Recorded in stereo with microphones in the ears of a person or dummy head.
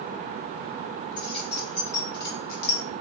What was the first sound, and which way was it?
Keys jangling, 25° left (ahead or behind).